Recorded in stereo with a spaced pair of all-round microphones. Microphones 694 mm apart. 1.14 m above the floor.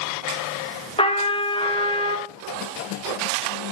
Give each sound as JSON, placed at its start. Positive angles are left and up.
{"t": 1.0, "sound": "a trumpet", "side_deg": 10, "distance_m": 1.2}